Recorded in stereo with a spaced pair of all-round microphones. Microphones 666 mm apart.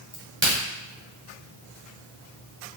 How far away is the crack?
About 1.8 m.